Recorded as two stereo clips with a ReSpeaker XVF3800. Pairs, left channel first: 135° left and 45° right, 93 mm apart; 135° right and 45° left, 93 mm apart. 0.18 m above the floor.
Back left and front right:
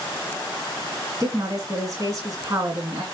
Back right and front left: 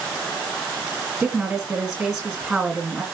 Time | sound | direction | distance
1.2 | a woman speaking | 40° right | 1.9 m